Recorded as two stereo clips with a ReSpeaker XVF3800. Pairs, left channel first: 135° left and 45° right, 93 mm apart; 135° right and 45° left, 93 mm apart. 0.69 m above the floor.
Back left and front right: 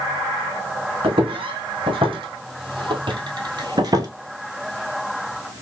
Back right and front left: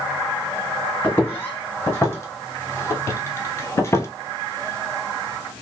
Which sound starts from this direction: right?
Footsteps, at 1.0 s.